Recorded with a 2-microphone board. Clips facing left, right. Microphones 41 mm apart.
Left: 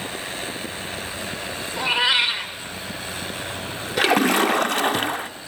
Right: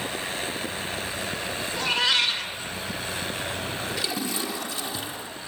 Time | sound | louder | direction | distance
1.8 | a cat meowing | left 4 dB | 20° left (ahead or behind) | 1.3 m
4.0 | a splash | left 17 dB | 60° left (ahead or behind) | 0.8 m